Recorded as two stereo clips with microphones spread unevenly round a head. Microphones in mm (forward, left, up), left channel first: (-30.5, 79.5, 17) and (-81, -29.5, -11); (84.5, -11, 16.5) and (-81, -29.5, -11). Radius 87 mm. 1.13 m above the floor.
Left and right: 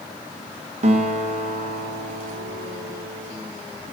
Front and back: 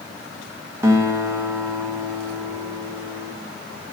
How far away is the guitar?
About 1.6 m.